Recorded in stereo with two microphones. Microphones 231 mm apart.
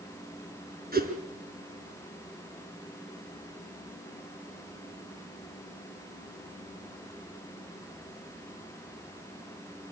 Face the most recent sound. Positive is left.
turn(degrees=-40)  # may be behind; listen again after turning